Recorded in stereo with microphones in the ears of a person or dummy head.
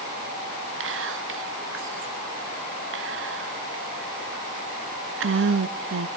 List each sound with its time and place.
0.8 s whispering: 65° right (ahead or behind), 1.2 m